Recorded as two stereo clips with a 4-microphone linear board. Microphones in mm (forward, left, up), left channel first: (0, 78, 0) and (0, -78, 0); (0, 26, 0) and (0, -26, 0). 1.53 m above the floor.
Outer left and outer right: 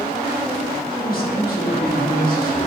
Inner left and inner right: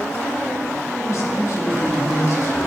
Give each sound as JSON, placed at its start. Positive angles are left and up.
{"t": 1.0, "sound": "a man speaking", "side_deg": 65, "distance_m": 4.5}